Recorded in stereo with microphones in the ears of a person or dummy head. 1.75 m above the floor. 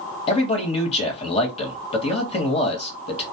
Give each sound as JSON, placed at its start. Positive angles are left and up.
{"t": 0.3, "sound": "a man speaking", "side_deg": 35, "distance_m": 1.1}